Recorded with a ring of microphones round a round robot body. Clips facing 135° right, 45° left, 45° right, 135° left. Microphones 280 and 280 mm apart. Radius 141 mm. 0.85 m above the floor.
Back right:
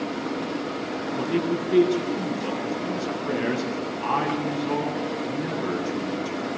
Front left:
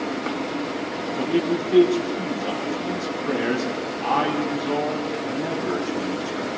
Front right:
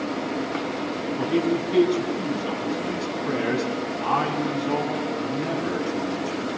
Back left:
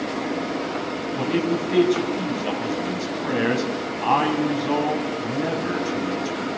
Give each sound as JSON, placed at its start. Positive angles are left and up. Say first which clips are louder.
{"t": 1.2, "sound": "a man speaking", "louder": "front left 3 dB, even", "azimuth_deg": 150, "distance_m": 8.0}